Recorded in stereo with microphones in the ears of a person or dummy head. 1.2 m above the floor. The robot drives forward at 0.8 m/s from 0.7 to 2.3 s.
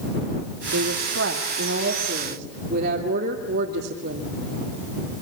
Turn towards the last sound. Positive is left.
turn(degrees=-50)  # may be behind; listen again after turning